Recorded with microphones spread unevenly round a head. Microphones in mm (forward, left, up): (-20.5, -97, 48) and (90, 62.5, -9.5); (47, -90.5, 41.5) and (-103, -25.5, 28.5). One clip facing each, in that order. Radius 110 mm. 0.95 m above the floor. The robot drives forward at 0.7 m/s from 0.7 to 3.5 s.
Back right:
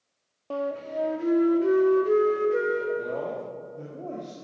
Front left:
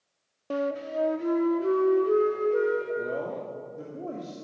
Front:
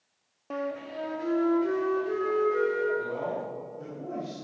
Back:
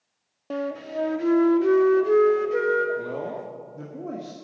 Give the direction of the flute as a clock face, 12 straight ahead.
7 o'clock.